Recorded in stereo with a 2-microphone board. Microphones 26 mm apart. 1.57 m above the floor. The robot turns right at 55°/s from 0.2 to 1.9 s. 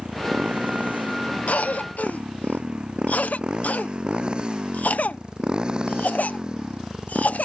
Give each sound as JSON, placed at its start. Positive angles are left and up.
{"t": 0.0, "sound": "a motorcycle", "side_deg": -40}
{"t": 1.5, "sound": "a cough", "side_deg": 70}